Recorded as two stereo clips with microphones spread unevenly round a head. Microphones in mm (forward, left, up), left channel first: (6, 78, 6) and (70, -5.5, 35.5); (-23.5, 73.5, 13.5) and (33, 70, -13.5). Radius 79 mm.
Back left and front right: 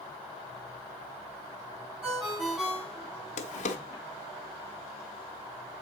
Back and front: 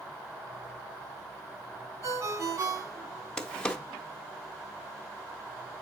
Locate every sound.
2.0 s a ringtone: 30° left, 7 m
3.4 s a drawer: 125° left, 1.1 m